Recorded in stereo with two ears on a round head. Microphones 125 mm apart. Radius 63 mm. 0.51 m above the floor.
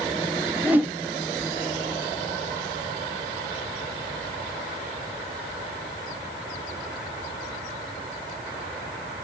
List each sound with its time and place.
0.6 s a whoosh: 10° right (ahead or behind), 0.5 m